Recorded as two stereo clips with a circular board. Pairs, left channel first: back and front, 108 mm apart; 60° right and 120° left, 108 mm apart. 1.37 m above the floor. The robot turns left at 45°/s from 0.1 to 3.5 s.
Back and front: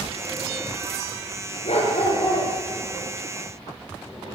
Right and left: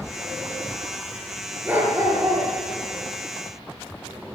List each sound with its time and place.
1.6 s a dog barking: 165° right, 6 m; by 2.5 s 155° left, 6 m